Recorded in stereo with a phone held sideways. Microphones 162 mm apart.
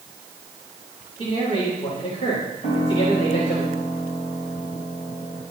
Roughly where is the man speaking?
Left.